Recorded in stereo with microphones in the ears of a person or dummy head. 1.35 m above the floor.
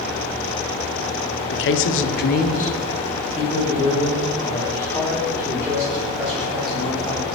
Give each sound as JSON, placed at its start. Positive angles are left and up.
{"t": 1.5, "sound": "a man speaking", "side_deg": 50, "distance_m": 0.5}